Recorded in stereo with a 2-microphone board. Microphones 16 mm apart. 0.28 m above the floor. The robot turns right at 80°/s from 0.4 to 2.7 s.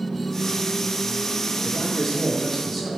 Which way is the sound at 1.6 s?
20° left (ahead or behind).